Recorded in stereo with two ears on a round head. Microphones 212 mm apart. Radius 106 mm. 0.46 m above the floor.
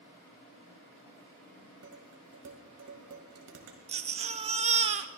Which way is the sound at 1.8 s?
70° right (ahead or behind).